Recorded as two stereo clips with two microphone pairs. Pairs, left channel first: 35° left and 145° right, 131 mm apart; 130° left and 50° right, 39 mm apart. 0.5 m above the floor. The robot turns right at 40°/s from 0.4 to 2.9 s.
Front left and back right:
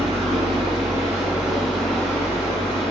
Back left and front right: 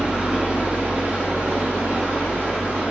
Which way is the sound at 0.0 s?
110° right.